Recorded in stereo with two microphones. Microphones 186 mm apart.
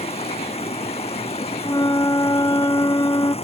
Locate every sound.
0.0 s running water: 35° left (ahead or behind)
1.6 s a flute: 20° left (ahead or behind)